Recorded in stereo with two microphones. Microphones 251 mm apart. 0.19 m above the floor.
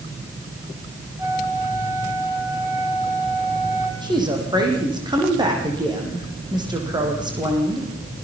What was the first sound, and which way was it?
A flute, 10° right (ahead or behind).